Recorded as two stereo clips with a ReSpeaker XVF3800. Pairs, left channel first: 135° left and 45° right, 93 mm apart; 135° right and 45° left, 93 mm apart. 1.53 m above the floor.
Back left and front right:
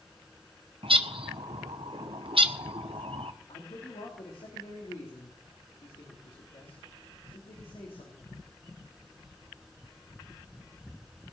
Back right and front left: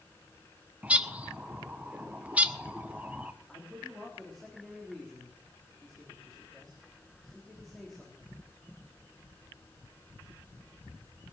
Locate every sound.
0.8 s a bird: 30° right, 1.0 m
3.5 s a man speaking: 140° left, 3 m